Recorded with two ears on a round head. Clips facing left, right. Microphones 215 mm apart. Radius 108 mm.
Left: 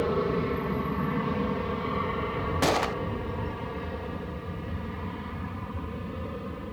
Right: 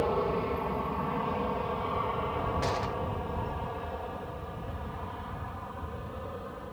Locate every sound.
0.0 s an aircraft: 25° left (ahead or behind); by 6.7 s 35° left (ahead or behind)
2.6 s a gunshot: 85° left